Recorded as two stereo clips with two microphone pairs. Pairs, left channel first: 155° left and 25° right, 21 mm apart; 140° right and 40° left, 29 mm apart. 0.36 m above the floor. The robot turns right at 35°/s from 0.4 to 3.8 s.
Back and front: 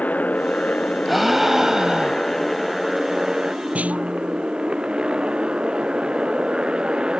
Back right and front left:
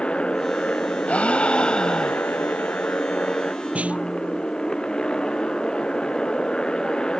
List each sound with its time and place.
0.0 s a motorcycle: 165° left; by 7.2 s 75° right
1.1 s a gasp: 110° right; by 2.5 s 60° right
3.8 s a snare drum: 5° right; by 4.5 s straight ahead